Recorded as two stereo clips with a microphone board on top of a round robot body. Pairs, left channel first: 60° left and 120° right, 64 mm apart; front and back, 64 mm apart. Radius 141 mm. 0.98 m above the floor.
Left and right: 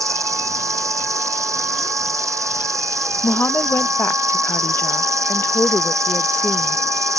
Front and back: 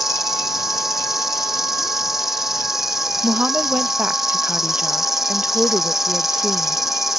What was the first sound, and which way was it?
An insect, 95° right.